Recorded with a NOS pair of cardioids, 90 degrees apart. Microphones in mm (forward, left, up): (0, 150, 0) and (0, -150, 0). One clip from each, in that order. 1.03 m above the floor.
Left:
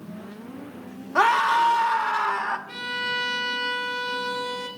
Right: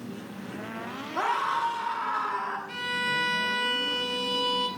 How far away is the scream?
About 1.3 m.